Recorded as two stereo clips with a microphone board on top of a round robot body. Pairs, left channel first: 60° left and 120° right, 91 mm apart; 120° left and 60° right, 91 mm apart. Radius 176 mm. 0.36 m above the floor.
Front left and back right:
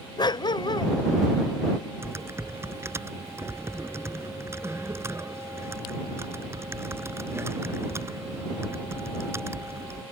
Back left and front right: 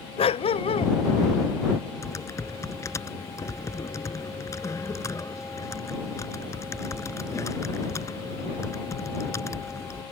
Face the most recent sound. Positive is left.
turn(degrees=180)